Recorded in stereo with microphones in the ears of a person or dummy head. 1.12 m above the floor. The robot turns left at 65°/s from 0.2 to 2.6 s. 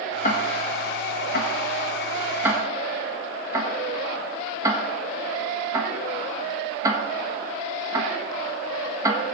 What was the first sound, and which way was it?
Ticking, 45° left (ahead or behind).